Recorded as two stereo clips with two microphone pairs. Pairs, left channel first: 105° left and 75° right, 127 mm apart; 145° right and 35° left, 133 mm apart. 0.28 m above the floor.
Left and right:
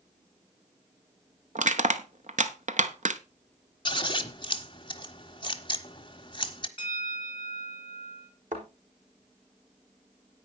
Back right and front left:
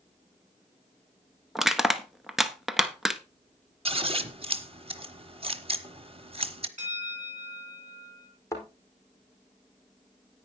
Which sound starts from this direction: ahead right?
Crushing, at 1.6 s.